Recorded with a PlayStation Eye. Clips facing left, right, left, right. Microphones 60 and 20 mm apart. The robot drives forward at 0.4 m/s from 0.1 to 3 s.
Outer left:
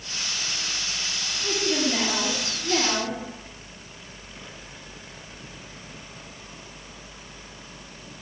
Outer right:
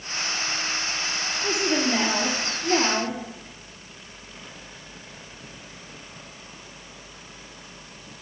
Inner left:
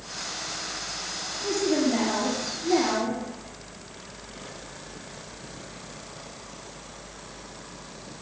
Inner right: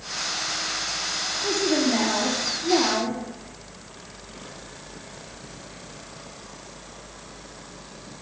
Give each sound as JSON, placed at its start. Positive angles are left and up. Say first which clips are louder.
{"t": 1.4, "sound": "a woman speaking", "louder": "outer right 1 dB, inner right 1 dB", "side_deg": -30, "distance_m": 6.5}